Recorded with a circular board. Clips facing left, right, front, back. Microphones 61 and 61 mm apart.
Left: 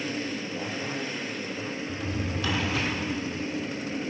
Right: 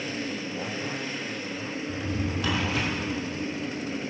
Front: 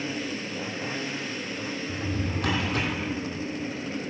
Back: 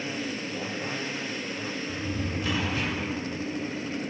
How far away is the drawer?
About 3 m.